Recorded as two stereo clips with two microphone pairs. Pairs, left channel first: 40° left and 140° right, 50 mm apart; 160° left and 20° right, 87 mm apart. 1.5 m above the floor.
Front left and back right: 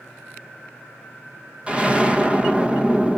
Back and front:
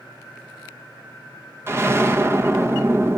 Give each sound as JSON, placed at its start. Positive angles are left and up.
{"t": 1.7, "sound": "an explosion", "azimuth_deg": -80, "distance_m": 1.0}